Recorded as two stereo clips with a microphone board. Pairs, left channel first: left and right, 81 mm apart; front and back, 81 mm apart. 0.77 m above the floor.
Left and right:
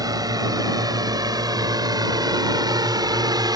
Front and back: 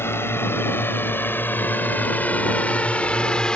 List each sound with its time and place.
0.0 s a drone: 60° right; by 3.6 s 80° right